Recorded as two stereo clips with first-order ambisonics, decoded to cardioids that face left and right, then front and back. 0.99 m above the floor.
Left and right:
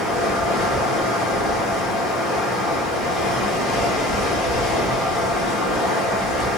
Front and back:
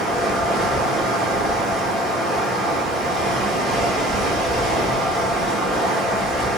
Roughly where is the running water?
Behind left.